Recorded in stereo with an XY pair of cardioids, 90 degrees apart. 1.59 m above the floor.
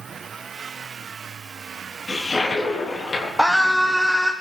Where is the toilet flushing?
40° left, 3.5 m.